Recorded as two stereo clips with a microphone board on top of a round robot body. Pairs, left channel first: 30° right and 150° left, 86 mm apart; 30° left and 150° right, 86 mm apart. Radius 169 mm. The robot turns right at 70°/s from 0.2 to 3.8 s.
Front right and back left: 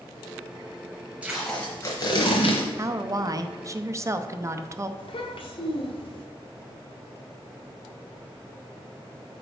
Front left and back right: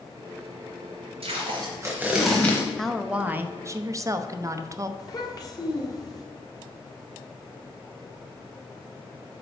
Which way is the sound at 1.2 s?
135° right.